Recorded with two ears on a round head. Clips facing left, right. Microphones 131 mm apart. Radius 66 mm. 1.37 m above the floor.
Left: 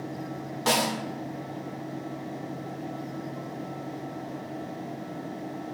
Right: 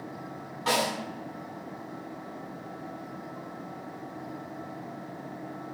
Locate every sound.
0.7 s a snare drum: 50° left (ahead or behind), 0.5 m